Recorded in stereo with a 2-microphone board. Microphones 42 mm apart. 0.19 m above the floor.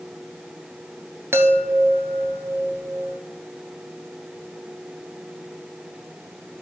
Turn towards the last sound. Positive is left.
turn(degrees=-70)  # may be behind; listen again after turning